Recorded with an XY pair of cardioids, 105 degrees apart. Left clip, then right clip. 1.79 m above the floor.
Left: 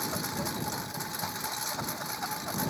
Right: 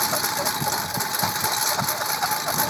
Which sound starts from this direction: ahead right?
A lawn mower, at 0.0 s.